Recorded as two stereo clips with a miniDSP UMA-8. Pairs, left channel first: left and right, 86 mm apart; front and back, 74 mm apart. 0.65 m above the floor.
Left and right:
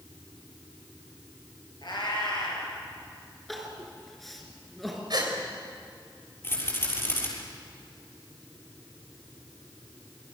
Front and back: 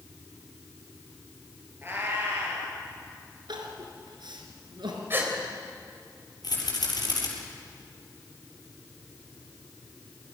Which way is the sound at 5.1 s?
120° right.